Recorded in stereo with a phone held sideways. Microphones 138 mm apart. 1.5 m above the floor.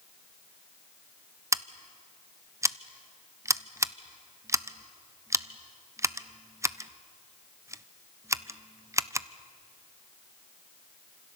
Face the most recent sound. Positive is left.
turn(degrees=-20)  # may be behind; listen again after turning